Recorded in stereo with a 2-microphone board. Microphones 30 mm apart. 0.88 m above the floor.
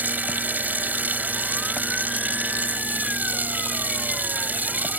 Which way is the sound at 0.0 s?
75° right (ahead or behind).